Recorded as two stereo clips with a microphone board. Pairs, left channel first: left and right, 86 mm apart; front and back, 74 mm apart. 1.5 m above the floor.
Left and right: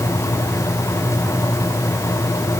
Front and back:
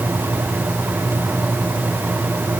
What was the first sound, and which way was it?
Only background noise.